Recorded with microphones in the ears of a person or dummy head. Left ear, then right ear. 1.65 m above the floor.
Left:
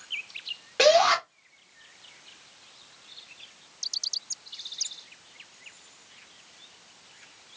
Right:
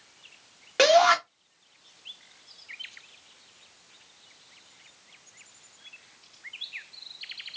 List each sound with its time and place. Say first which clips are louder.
0.8 s a shout: right 1 dB; 30° right (ahead or behind), 0.9 m